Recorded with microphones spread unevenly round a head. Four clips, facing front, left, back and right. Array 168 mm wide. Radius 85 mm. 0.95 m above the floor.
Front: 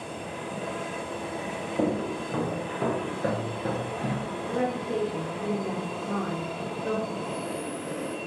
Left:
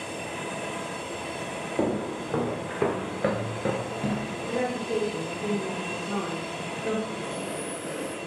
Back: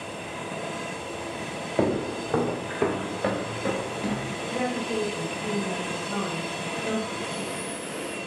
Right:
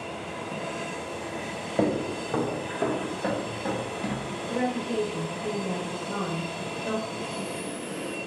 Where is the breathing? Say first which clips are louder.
Left 1 dB, even; 55° left, 2.5 m.